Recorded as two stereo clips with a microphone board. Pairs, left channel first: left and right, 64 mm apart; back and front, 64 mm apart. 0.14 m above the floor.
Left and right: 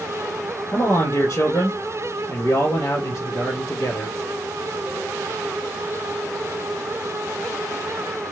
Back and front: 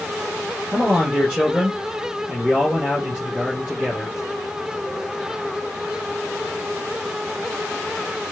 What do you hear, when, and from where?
0.7 s a man speaking: 80° left, 3.5 m